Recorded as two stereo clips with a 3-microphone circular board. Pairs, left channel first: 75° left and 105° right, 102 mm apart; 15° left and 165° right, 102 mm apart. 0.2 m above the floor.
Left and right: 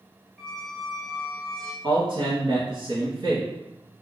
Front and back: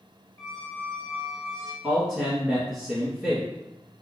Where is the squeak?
5° right, 0.8 m.